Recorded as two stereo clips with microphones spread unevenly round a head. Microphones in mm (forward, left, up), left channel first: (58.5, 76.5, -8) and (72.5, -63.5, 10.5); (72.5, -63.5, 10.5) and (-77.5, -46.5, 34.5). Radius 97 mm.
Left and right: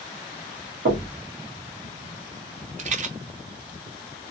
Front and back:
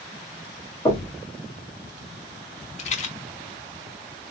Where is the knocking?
75° right, 1.7 m.